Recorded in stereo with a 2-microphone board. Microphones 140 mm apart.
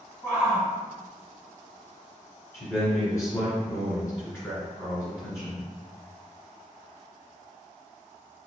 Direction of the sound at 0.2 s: 20° left (ahead or behind).